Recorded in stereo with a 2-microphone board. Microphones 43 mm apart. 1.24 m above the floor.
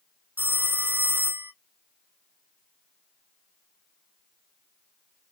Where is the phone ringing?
50° right (ahead or behind), 0.6 m.